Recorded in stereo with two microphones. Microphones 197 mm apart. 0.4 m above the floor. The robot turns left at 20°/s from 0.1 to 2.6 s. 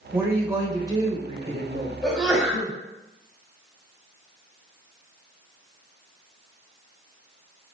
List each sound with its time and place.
0.1 s a woman speaking: 10° right, 1.2 m; by 1.9 s 45° right, 1.2 m
2.0 s a sneeze: centre (ahead or behind), 1.9 m; by 2.7 s 5° right (ahead or behind), 1.9 m